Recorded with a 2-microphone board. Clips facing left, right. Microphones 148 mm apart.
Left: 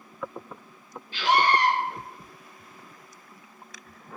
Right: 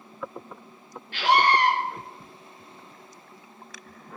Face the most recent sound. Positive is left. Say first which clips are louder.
# right 1 dB
turn(degrees=-75)  # may be behind; listen again after turning